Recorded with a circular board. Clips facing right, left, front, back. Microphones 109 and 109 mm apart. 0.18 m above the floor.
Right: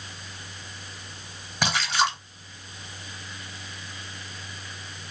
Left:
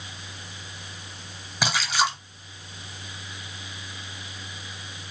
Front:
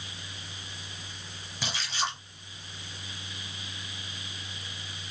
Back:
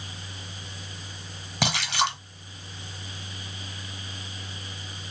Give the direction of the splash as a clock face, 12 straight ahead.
6 o'clock.